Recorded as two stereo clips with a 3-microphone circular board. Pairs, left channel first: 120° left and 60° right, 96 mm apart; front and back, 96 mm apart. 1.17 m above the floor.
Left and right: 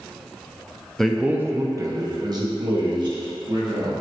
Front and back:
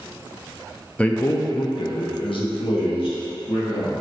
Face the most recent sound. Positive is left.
turn(degrees=-25)